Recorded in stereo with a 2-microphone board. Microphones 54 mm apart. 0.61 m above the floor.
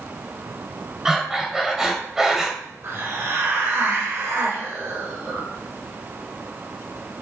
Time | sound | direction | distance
1.1 | breathing | 5° right (ahead or behind) | 2.5 m
2.8 | a hiss | 50° right (ahead or behind) | 3 m